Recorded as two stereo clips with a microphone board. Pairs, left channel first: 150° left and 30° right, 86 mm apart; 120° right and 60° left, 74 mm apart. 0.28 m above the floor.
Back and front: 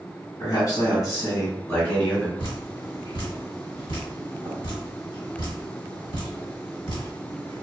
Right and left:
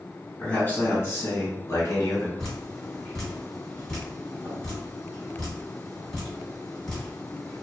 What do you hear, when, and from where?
0.4 s a man speaking: 175° left, 1.6 m; by 2.3 s 130° right, 1.3 m
2.4 s dripping: 160° left, 1.6 m